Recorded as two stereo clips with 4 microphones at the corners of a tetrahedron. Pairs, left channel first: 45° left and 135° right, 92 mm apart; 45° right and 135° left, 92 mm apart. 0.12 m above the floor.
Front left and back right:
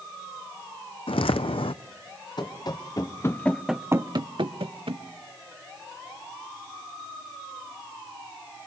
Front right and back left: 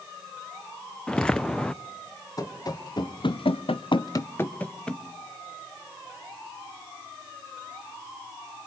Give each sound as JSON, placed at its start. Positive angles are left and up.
{"t": 1.1, "sound": "footsteps", "azimuth_deg": 35, "distance_m": 0.5}
{"t": 2.4, "sound": "running footsteps", "azimuth_deg": 5, "distance_m": 1.8}